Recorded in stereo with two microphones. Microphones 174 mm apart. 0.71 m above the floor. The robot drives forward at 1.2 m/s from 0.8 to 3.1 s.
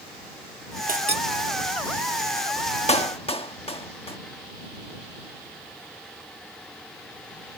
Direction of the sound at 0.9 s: 55° right (ahead or behind).